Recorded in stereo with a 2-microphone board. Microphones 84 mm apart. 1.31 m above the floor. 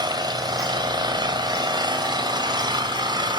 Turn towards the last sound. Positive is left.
turn(degrees=-60)  # may be behind; listen again after turning